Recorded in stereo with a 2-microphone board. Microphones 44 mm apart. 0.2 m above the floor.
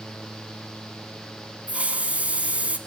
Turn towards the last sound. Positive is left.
turn(degrees=-30)  # may be behind; listen again after turning